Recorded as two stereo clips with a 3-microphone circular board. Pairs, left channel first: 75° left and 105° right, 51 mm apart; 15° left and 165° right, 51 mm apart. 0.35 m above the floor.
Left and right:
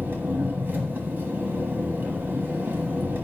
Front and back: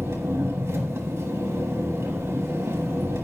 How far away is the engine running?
About 1.3 m.